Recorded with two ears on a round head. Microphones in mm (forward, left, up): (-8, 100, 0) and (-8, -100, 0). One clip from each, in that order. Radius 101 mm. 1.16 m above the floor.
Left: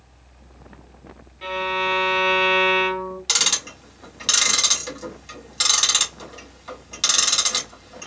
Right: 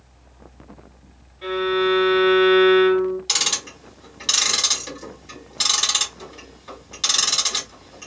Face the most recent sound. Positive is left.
turn(degrees=15)  # may be behind; listen again after turning